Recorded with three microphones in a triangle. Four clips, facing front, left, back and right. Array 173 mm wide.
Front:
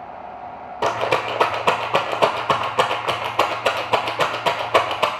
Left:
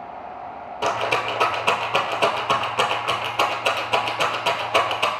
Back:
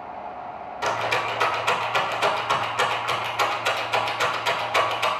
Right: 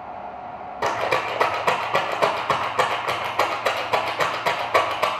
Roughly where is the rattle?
Ahead.